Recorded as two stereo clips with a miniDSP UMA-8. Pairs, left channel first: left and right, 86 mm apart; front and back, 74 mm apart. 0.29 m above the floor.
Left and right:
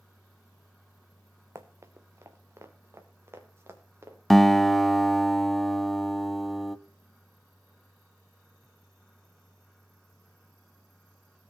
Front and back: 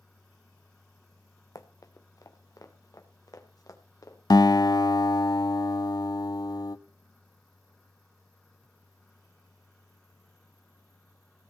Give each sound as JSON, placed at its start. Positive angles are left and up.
{"t": 1.6, "sound": "running footsteps", "azimuth_deg": -35, "distance_m": 1.5}
{"t": 4.3, "sound": "a guitar", "azimuth_deg": 0, "distance_m": 0.6}